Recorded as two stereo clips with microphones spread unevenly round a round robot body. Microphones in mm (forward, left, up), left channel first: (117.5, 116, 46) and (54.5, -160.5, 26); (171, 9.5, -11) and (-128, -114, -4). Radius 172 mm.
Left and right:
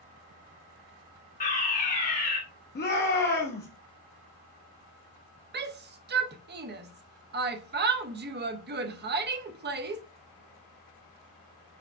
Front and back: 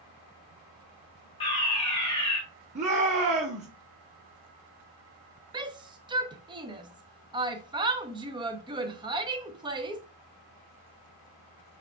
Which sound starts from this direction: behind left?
A shout, at 2.8 s.